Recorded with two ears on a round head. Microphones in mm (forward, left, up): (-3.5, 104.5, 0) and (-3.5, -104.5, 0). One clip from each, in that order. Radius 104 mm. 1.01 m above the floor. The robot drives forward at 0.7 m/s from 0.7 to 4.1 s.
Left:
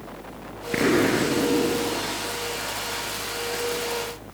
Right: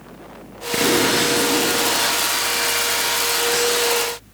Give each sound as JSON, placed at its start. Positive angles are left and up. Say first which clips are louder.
{"t": 0.7, "sound": "an explosion", "louder": "right 4 dB", "side_deg": 0}